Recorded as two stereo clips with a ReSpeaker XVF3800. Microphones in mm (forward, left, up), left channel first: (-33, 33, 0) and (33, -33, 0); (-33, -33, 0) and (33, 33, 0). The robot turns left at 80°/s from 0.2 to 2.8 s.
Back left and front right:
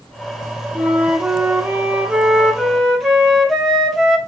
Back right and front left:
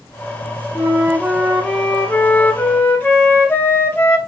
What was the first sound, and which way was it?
A flute, 30° left.